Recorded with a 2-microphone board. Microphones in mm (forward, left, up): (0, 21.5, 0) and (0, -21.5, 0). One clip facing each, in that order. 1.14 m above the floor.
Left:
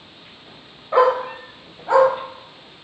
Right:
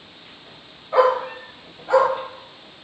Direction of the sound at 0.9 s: 40° left (ahead or behind).